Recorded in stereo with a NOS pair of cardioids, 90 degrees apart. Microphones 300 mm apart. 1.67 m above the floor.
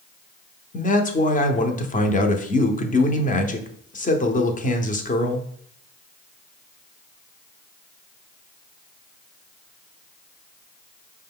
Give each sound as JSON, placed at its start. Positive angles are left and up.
{"t": 0.7, "sound": "a man speaking", "azimuth_deg": 25, "distance_m": 0.8}